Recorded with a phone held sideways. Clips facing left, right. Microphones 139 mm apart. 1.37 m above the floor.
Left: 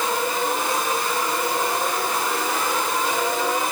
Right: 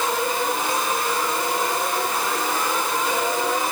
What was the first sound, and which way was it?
Only background noise.